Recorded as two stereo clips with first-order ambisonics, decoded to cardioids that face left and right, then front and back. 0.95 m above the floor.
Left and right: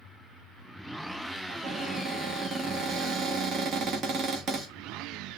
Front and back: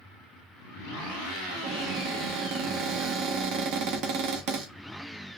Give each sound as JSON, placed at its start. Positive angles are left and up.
{"t": 1.5, "sound": "a cupboard door", "azimuth_deg": -150, "distance_m": 0.9}